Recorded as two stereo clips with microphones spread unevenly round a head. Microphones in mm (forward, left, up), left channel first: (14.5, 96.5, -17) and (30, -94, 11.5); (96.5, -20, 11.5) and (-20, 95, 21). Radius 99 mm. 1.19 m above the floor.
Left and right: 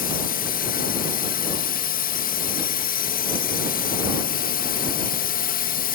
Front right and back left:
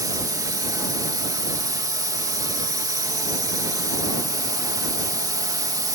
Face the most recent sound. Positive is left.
turn(degrees=70)